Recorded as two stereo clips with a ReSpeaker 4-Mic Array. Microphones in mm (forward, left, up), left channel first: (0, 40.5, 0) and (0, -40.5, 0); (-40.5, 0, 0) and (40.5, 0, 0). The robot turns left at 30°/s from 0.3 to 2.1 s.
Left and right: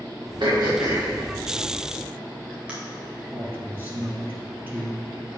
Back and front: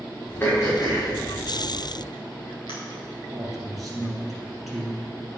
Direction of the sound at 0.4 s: 115° right.